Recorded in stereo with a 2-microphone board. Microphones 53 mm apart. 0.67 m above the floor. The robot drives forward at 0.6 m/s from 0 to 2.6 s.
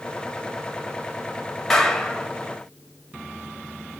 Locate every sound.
1.7 s a clap: 10° left (ahead or behind), 3.5 m; by 2.3 s 5° left (ahead or behind), 3.5 m